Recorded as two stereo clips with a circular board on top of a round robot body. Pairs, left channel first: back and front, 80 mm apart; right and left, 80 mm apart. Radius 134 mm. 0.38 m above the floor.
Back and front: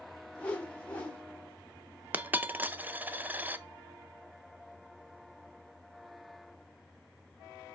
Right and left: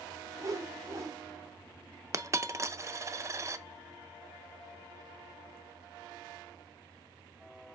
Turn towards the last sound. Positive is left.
turn(degrees=60)